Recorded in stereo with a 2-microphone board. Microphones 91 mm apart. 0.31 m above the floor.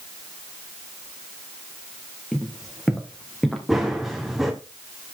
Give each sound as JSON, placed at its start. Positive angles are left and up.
{"t": 2.3, "sound": "footsteps", "side_deg": 0, "distance_m": 4.0}
{"t": 3.7, "sound": "running footsteps", "side_deg": -5, "distance_m": 2.5}